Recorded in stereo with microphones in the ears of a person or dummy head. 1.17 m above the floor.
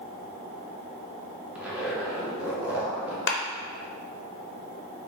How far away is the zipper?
About 0.6 m.